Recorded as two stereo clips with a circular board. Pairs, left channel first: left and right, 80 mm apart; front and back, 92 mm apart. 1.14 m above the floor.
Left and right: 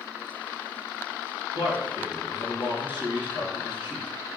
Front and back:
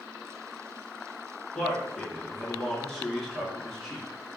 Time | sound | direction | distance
1.5 | a man speaking | 85° left | 1.7 m